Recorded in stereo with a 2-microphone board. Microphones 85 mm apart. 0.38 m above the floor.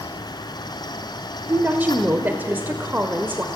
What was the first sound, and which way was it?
A woman speaking, 20° right (ahead or behind).